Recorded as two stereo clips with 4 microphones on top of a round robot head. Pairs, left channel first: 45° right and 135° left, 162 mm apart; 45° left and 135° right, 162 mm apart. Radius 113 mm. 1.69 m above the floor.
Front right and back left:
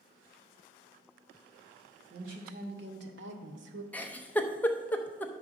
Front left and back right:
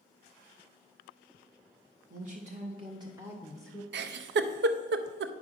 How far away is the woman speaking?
About 1.9 m.